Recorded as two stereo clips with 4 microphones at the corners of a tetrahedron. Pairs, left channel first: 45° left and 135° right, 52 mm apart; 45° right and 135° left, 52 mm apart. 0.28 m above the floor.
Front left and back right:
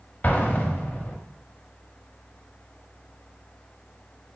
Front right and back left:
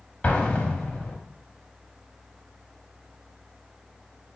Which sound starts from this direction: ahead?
An explosion, at 0.2 s.